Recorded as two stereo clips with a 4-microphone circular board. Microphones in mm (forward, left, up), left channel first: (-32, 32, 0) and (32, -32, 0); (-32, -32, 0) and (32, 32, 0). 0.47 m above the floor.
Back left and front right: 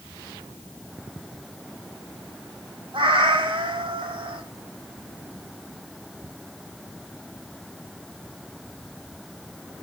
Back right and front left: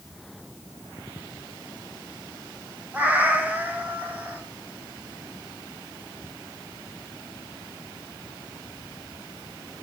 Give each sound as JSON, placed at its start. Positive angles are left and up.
{"t": 2.9, "sound": "a cat meowing", "azimuth_deg": -25, "distance_m": 0.9}